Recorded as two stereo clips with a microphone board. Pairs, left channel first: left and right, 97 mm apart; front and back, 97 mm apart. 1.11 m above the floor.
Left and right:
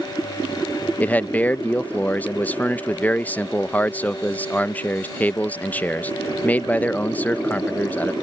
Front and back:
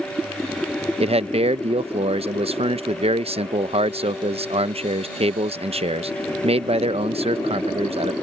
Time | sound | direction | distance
1.0 | a man speaking | 165° left | ?